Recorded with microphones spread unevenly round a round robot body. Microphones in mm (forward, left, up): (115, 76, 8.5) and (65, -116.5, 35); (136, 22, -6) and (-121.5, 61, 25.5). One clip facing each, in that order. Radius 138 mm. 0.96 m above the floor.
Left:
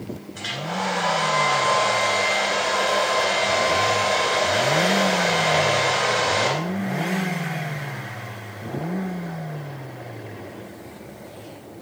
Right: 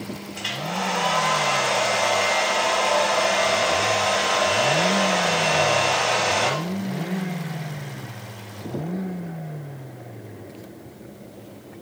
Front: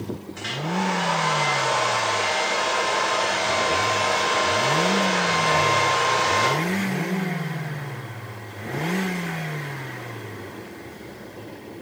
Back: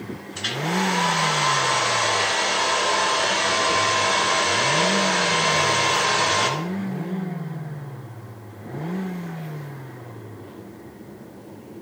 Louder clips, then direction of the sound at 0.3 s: Even, back 4 dB; 145° left.